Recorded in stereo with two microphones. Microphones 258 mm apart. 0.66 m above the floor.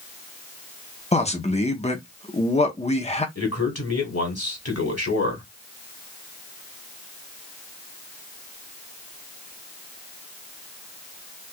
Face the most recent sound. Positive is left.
turn(degrees=70)  # may be behind; listen again after turning